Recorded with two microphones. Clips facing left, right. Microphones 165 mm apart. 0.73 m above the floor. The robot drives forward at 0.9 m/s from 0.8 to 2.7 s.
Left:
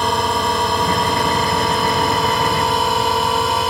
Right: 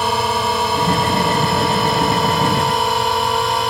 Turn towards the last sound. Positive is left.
turn(degrees=0)  # may be behind; listen again after turning